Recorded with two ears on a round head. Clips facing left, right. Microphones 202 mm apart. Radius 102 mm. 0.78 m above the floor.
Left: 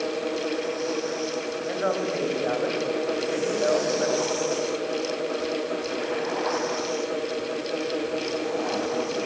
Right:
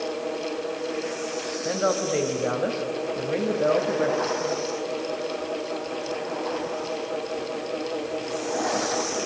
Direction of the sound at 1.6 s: 50° right (ahead or behind).